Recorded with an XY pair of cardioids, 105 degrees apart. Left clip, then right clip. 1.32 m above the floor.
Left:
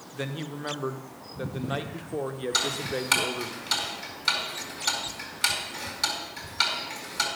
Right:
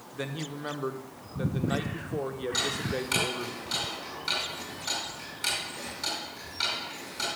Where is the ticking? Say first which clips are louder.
Left 3 dB; 60° left, 4 m.